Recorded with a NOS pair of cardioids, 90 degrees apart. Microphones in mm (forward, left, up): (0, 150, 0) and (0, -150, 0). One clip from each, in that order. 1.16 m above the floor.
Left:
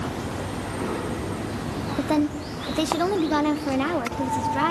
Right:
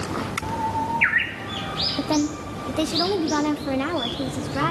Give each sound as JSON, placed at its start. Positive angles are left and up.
{"t": 2.0, "sound": "a woman speaking", "azimuth_deg": -10, "distance_m": 1.7}